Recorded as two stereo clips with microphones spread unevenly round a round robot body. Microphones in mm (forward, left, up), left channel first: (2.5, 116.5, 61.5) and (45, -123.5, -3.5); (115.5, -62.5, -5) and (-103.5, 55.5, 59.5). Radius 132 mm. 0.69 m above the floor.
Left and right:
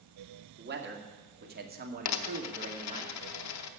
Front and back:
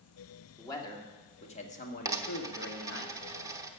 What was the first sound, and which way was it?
A man speaking, 95° right.